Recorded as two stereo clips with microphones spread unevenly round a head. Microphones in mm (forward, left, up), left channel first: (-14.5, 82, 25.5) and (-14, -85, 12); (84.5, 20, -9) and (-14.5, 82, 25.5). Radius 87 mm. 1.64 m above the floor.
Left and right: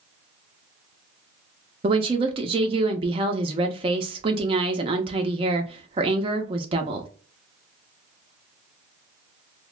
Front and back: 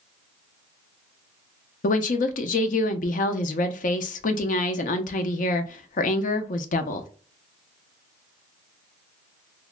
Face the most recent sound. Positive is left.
turn(degrees=-30)